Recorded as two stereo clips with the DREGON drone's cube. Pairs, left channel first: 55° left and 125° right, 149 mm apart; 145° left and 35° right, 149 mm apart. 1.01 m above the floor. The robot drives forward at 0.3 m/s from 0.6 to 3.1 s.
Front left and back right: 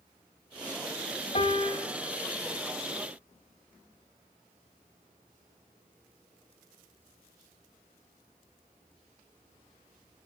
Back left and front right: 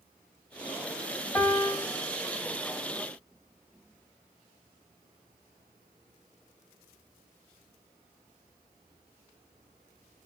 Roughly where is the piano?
Left.